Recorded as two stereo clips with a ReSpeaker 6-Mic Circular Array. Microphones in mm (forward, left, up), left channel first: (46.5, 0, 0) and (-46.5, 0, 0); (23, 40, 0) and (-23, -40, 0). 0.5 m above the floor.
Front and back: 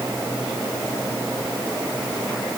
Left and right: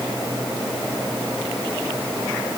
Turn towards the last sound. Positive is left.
No sound to turn to.